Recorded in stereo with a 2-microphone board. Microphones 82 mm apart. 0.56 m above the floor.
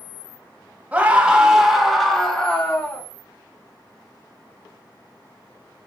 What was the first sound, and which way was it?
A scream, 15° right (ahead or behind).